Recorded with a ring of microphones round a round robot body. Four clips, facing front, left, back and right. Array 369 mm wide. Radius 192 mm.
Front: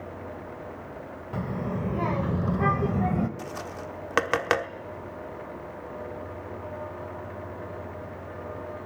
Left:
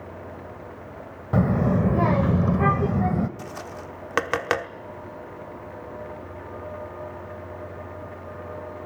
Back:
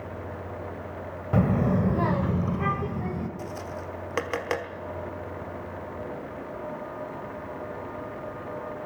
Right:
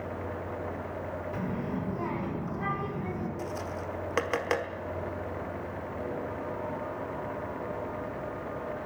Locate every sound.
1.3 s a child speaking: 125° left, 1.4 m; by 3.3 s 55° left, 1.5 m
3.4 s tapping: 45° left, 1.0 m